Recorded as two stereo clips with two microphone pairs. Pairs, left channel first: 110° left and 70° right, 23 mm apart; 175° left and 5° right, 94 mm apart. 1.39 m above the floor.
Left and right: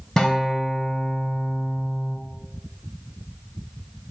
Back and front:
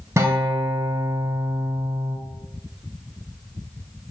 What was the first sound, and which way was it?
A guitar, 50° left.